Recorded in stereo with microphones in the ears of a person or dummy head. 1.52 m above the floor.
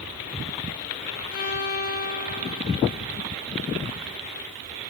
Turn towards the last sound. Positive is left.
turn(degrees=50)  # may be behind; listen again after turning